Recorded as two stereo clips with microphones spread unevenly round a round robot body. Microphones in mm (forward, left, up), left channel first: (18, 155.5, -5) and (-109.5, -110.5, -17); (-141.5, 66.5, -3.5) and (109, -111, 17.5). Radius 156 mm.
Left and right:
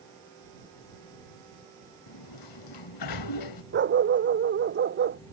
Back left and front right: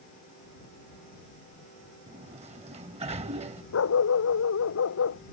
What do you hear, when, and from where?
2.1 s a sliding door: 35° left
3.7 s a dog barking: 170° right